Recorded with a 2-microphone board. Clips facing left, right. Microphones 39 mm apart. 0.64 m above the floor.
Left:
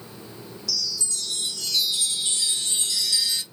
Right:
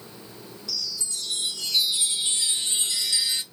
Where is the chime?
20° right (ahead or behind), 0.8 m.